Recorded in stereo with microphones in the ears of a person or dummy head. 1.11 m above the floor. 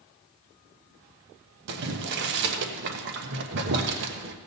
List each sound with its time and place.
1.7 s boiling: 65° right (ahead or behind), 1.1 m